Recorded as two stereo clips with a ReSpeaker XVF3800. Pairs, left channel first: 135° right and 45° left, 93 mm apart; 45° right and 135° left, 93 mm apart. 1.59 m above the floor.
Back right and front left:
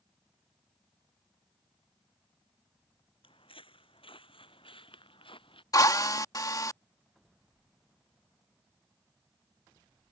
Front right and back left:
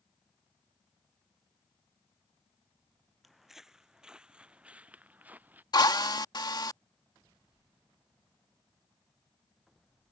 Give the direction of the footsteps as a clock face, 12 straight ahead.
5 o'clock.